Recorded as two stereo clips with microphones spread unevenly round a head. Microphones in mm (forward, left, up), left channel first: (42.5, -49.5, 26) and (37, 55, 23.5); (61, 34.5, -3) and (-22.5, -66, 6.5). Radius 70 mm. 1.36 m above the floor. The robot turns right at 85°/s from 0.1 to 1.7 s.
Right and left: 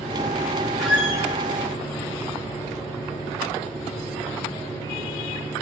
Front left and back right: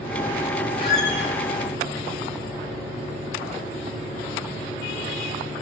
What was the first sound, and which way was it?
A squeak, straight ahead.